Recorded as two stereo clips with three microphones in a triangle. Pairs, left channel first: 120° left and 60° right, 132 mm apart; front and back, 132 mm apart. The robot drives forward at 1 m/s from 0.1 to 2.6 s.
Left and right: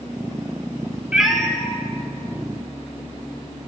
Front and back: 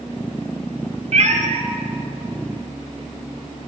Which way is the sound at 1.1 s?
140° right.